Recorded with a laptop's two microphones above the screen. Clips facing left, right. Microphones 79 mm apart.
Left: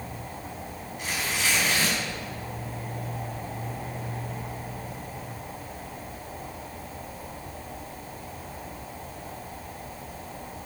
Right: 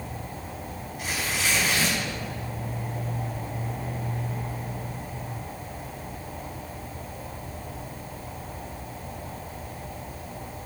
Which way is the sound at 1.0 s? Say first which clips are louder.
Even; 5° right (ahead or behind).